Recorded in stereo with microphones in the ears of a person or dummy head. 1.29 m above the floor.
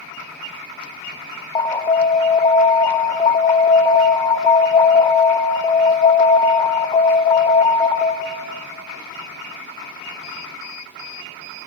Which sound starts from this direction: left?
An alarm, at 1.6 s.